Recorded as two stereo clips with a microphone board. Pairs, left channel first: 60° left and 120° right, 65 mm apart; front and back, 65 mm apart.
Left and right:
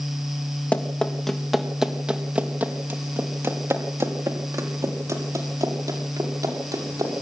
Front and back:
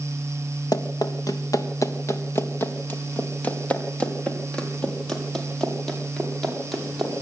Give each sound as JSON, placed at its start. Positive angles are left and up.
{"t": 0.7, "sound": "running footsteps", "azimuth_deg": -10, "distance_m": 3.5}